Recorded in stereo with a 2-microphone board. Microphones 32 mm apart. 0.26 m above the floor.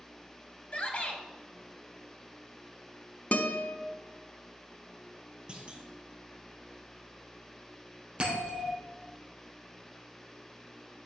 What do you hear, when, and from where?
0.7 s a shout: 40° left (ahead or behind), 1.6 m
3.3 s a guitar: 50° left (ahead or behind), 0.9 m
5.5 s a clunk: 30° right (ahead or behind), 1.6 m
8.2 s a bell: 35° right (ahead or behind), 4 m